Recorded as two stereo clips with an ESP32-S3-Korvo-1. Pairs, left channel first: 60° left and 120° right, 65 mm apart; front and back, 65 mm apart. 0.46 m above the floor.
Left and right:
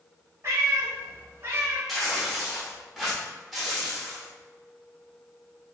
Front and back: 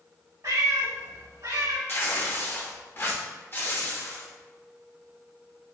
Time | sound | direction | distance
0.4 | a cat meowing | 160° right | 1.0 m
1.9 | tearing paper | 30° right | 0.8 m